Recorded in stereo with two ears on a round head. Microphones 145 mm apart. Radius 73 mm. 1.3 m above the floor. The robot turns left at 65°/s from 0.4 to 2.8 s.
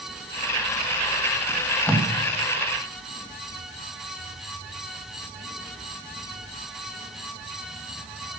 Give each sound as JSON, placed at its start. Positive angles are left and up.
{"t": 1.5, "sound": "tape being pulled", "side_deg": -20, "distance_m": 1.8}